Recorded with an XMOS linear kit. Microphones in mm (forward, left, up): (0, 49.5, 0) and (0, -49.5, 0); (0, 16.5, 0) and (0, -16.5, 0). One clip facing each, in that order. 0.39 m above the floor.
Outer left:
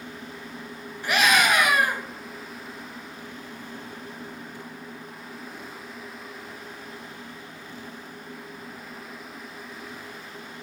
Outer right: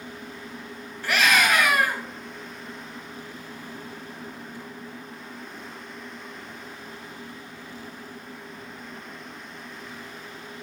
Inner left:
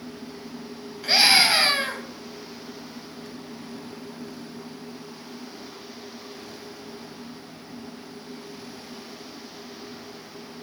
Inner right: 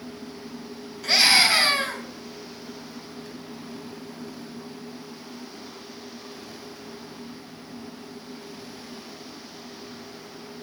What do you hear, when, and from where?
1.0 s a scream: 15° left (ahead or behind), 3 m